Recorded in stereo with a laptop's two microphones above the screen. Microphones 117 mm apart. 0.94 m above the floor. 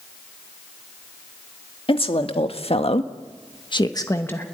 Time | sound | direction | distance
1.9 | a woman speaking | 55° left (ahead or behind) | 2 m